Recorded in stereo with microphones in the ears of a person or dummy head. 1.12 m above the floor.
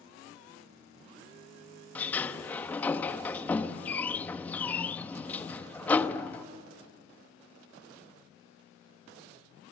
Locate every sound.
1.9 s a sliding door: 10° left (ahead or behind), 0.8 m